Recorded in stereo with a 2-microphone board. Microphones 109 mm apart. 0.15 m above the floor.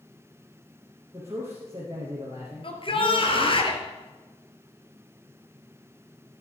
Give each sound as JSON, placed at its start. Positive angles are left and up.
{"t": 1.1, "sound": "a man speaking", "side_deg": -25, "distance_m": 4.0}
{"t": 2.6, "sound": "a shout", "side_deg": 50, "distance_m": 3.0}